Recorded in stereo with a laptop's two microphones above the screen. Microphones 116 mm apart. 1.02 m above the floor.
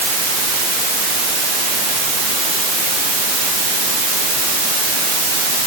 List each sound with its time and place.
Only background noise.